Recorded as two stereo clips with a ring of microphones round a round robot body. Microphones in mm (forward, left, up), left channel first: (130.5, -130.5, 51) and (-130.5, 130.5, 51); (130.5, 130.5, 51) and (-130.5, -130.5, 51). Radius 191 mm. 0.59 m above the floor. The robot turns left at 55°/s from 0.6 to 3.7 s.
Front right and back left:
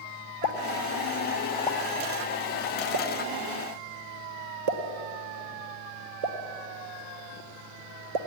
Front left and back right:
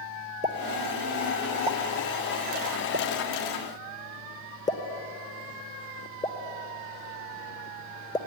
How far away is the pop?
About 1.5 m.